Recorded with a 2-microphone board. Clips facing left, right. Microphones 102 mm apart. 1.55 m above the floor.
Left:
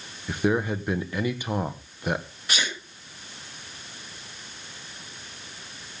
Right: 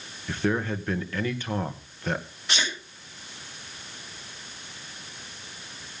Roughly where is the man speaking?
Centre.